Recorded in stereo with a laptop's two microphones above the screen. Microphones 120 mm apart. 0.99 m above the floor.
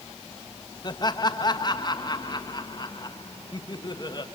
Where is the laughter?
35° left (ahead or behind), 1.4 m.